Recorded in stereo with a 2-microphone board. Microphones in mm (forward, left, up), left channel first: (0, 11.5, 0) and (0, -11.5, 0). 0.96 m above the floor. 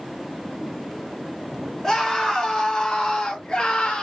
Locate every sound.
1.8 s a scream: 5° left (ahead or behind), 1.7 m; by 4.0 s 40° left (ahead or behind), 0.8 m